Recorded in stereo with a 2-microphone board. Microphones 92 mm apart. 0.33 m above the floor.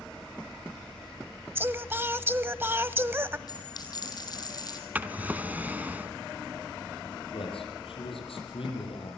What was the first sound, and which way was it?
Singing, 25° right (ahead or behind).